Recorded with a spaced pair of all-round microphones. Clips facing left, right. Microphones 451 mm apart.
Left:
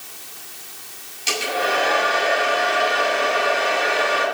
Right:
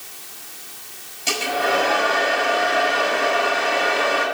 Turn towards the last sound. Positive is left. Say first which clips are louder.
# right 1 dB
turn(degrees=-65)  # may be behind; listen again after turning